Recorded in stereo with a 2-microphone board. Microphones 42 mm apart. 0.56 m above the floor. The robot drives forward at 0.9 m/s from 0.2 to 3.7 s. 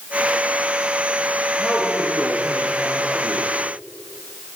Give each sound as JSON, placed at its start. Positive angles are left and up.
{"t": 1.6, "sound": "a man speaking", "side_deg": 0, "distance_m": 9.5}